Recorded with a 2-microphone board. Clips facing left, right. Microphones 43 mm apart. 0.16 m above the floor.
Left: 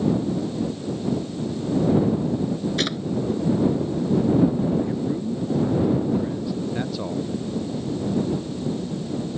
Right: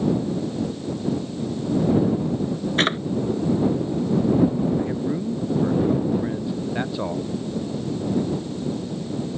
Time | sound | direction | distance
2.8 | a drawer | 40° right (ahead or behind) | ?
4.8 | a man speaking | 25° right (ahead or behind) | ?